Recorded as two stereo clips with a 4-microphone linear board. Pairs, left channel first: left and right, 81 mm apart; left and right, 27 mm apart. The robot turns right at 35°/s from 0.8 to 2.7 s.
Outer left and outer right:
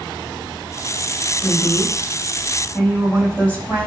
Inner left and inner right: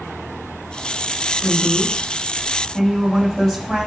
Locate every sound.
1.4 s a woman speaking: 115° left, 5.5 m; by 3.9 s 160° left, 5.5 m